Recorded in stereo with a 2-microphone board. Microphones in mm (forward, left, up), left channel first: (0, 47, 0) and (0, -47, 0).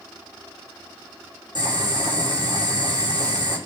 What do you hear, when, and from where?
1.6 s boiling: 50° right (ahead or behind), 7.5 m